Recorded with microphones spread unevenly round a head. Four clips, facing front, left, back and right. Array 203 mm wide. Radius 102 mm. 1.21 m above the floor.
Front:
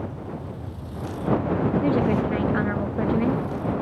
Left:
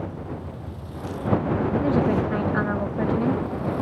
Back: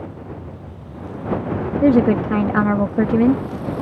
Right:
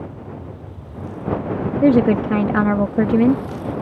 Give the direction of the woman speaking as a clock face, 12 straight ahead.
4 o'clock.